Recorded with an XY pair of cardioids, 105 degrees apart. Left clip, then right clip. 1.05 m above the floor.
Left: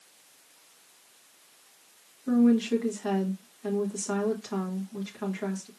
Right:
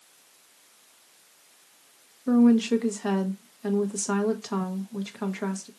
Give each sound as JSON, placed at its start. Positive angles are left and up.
{"t": 2.3, "sound": "a woman speaking", "azimuth_deg": -40, "distance_m": 1.2}